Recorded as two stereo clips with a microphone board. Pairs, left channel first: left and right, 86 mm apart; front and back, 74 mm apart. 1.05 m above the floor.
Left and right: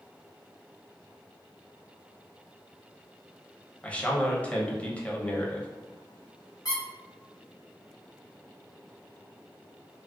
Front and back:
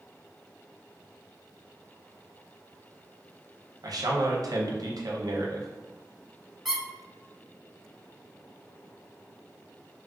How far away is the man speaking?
About 0.6 m.